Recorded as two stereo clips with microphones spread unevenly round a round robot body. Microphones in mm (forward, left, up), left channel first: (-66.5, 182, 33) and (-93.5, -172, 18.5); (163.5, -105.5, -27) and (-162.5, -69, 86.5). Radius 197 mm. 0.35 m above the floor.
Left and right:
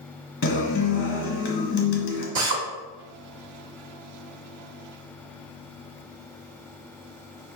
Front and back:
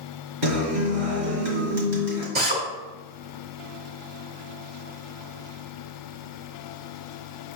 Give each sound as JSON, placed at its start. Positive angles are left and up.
{"t": 0.4, "sound": "a guitar", "azimuth_deg": 140, "distance_m": 1.4}
{"t": 2.4, "sound": "a drill", "azimuth_deg": -115, "distance_m": 0.9}